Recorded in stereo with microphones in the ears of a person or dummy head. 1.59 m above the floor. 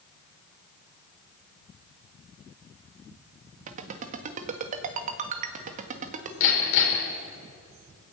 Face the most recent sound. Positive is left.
turn(degrees=75)  # may be behind; listen again after turning